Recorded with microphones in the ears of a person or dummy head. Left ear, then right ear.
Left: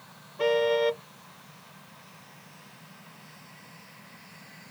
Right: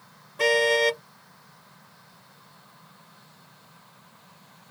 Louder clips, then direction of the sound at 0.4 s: Right 3 dB; 85° right.